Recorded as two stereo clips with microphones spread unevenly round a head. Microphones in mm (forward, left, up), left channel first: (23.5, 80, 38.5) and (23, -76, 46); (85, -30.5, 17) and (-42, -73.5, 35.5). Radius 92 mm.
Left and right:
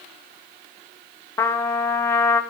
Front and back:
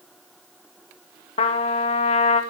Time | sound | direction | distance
1.4 | a trumpet | 20° left | 0.5 m